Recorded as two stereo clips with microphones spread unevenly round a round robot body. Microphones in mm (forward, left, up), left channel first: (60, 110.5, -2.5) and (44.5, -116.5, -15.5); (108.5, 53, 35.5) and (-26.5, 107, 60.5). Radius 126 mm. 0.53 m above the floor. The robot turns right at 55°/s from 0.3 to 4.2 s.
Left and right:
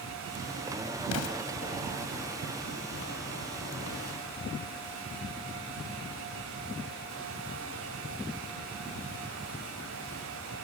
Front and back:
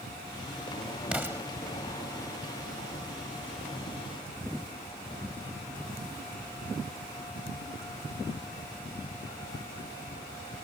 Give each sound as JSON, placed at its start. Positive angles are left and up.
{"t": 1.1, "sound": "an explosion", "azimuth_deg": 75}